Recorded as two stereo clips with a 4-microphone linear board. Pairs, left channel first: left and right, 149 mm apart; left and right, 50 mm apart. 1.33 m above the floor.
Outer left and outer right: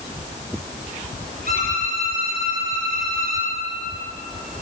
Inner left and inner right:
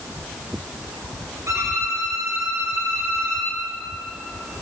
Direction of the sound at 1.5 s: 85° right.